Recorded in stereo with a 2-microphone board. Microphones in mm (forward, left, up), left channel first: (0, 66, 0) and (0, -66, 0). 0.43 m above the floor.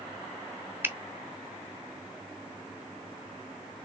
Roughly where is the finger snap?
Centre.